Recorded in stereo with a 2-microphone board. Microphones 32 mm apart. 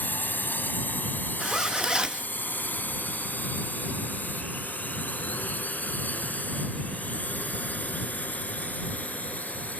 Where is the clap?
No clap in this recording.